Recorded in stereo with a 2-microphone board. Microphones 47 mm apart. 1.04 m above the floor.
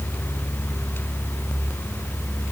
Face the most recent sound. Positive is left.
No sound to turn to.